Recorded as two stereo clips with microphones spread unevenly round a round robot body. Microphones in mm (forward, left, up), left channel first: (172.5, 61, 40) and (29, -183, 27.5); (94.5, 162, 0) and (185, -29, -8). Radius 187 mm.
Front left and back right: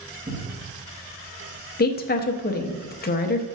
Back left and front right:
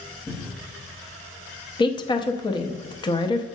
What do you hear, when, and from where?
0.3 s a cupboard door: 170° right, 1.0 m
1.8 s a woman speaking: 65° left, 0.6 m